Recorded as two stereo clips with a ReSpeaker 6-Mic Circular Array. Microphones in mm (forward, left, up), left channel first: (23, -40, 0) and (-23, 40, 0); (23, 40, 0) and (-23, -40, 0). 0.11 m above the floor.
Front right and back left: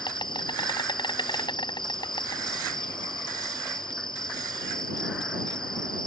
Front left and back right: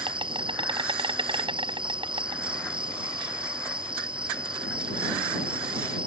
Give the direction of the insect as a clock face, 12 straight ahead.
3 o'clock.